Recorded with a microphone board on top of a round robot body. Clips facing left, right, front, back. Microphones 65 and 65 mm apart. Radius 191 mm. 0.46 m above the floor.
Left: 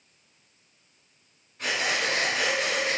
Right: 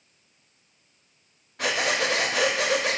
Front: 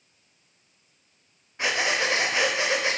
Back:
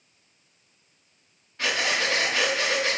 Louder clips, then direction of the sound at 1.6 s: Right 3 dB, front 1 dB; 70° right.